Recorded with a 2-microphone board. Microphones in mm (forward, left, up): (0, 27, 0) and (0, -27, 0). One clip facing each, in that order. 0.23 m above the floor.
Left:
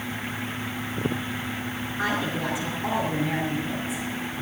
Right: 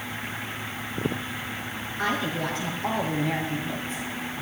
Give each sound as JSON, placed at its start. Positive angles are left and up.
{"t": 2.0, "sound": "a woman speaking", "side_deg": 15, "distance_m": 4.0}